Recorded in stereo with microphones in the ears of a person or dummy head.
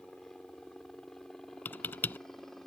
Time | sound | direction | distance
0.0 | a helicopter | 5° left (ahead or behind) | ?
1.6 | typing on a keyboard | 10° left (ahead or behind) | ?